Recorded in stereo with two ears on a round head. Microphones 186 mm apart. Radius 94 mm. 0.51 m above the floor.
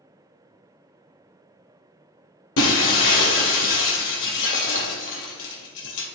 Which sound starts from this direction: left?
Breaking glass, at 2.6 s.